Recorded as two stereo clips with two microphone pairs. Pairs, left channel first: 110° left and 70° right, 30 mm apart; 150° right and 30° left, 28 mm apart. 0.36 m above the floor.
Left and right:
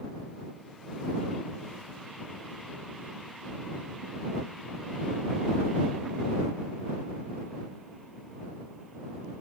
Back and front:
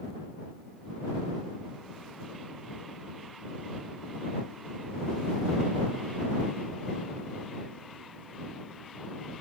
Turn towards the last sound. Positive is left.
No sound to turn to.